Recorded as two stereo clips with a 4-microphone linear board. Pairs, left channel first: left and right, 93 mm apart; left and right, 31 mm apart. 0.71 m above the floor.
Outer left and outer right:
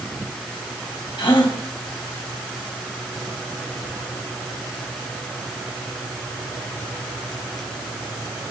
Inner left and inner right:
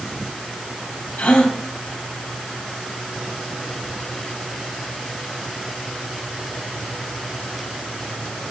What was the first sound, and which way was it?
A gasp, 60° left (ahead or behind).